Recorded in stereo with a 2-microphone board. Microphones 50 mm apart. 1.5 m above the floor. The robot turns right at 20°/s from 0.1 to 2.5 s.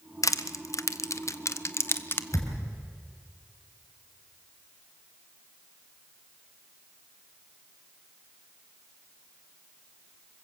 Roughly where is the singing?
I don't hear singing.